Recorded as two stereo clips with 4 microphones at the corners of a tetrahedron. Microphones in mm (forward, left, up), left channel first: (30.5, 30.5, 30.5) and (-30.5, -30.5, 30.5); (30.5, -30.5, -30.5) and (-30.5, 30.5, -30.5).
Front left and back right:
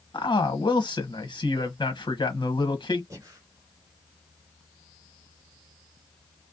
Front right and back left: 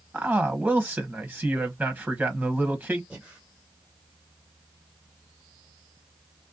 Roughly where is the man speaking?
Ahead left.